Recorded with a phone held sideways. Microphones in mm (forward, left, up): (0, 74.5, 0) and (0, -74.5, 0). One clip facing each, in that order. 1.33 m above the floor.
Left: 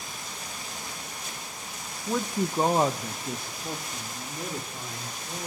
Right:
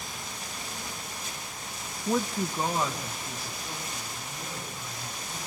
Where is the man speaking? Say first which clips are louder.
Even; 15° right (ahead or behind), 0.5 m; by 5.5 s 65° left (ahead or behind), 4 m.